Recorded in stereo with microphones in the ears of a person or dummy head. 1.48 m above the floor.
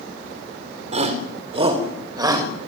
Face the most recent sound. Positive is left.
turn(degrees=-20)  # may be behind; listen again after turning